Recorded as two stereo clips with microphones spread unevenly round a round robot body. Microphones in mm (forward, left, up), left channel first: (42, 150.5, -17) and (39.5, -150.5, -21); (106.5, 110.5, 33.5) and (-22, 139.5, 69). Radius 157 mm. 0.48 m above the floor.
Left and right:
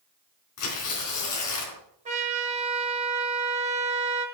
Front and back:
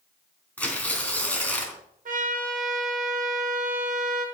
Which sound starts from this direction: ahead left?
Tearing paper, at 0.6 s.